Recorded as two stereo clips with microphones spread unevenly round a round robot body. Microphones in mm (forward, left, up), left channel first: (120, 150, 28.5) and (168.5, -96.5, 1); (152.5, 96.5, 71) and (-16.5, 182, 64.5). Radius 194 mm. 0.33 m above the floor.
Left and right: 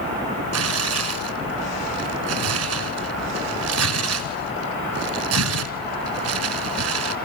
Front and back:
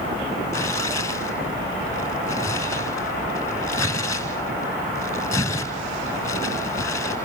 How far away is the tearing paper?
About 1.2 m.